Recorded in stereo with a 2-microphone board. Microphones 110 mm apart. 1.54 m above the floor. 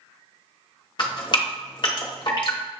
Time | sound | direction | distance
1.0 | dripping | 45° left (ahead or behind) | 0.9 m